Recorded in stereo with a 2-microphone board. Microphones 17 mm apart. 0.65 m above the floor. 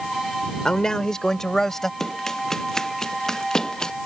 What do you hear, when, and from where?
0.7 s a man speaking: 50° left (ahead or behind); by 1.9 s 20° left (ahead or behind)
2.0 s running footsteps: 30° left (ahead or behind); by 3.9 s 45° left (ahead or behind)